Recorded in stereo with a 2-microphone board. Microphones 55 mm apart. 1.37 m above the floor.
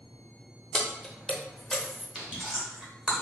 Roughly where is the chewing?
Centre.